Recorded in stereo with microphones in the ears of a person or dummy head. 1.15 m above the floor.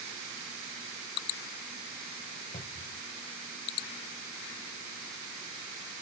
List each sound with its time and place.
2.5 s a cupboard door: 35° left (ahead or behind)